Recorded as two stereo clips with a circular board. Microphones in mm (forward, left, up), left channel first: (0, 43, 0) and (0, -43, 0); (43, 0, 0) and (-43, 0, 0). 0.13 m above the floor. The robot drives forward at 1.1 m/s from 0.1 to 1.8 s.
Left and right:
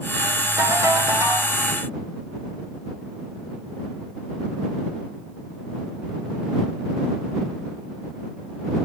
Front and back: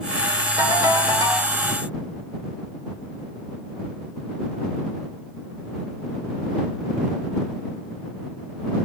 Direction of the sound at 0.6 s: 130° right.